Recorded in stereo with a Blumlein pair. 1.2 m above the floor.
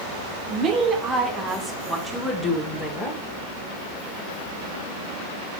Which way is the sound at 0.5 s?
35° right.